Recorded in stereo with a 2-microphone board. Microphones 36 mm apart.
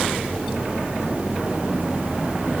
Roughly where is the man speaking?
No man speaking in this recording.